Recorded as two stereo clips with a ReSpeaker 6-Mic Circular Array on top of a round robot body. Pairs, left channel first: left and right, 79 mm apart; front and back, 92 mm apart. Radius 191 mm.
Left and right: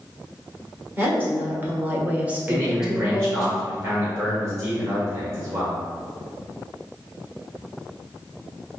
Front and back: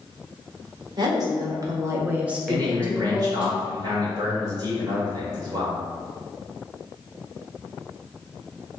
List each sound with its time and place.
1.0 s a woman speaking: 150° right, 1.5 m; by 3.5 s 5° left, 1.1 m
2.5 s a man speaking: 140° right, 1.9 m